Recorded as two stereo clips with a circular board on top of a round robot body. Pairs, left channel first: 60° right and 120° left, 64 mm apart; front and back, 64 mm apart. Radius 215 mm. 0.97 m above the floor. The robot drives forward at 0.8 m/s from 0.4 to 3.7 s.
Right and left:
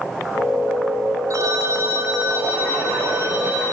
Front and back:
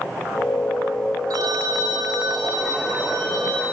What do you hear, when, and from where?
1.3 s a phone ringing: 160° left, 1.1 m; by 3.6 s 170° left, 3 m